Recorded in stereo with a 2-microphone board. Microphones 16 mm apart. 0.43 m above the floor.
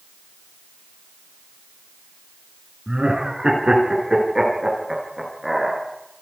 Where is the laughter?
50° right (ahead or behind), 5.5 m; by 5.8 s 15° right (ahead or behind), 6.5 m.